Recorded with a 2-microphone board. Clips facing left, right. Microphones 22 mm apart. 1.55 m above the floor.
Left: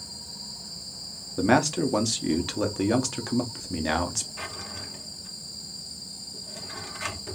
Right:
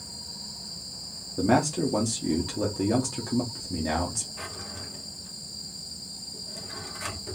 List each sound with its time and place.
1.4 s a man speaking: 55° left (ahead or behind), 0.8 m
4.4 s a drawer: 25° left (ahead or behind), 0.8 m